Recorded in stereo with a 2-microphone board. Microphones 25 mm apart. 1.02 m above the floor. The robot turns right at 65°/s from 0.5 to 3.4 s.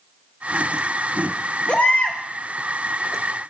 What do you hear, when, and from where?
1.7 s a baby crying: 45° left, 2 m; by 2.2 s 80° left, 2 m